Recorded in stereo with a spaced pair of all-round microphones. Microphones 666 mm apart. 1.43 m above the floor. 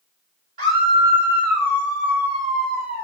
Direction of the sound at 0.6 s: 50° right (ahead or behind).